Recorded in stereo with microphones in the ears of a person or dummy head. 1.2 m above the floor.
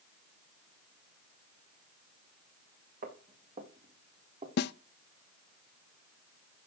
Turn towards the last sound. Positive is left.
turn(degrees=65)  # may be behind; listen again after turning